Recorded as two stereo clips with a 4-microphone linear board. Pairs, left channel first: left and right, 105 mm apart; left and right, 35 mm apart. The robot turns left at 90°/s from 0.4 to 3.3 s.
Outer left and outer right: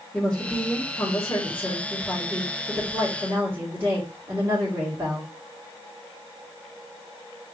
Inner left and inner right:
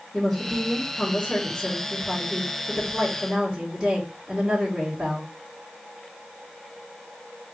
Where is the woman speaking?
10° left (ahead or behind), 1.5 m; by 5.3 s 25° right (ahead or behind), 1.5 m.